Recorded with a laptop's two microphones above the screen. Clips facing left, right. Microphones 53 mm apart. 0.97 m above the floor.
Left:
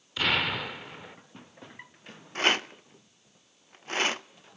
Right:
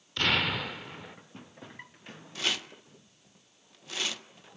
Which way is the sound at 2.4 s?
40° left (ahead or behind).